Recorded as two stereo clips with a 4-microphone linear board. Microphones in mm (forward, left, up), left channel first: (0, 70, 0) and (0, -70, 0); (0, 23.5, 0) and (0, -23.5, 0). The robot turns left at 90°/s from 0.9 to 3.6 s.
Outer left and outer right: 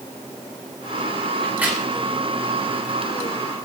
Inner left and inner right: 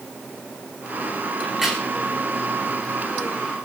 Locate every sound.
1.4 s a crack: 5° left (ahead or behind), 7 m; by 1.8 s 30° right (ahead or behind), 7 m